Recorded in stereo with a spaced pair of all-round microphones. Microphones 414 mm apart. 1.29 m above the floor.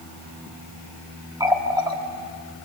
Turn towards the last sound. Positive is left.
turn(degrees=-10)  # may be behind; listen again after turning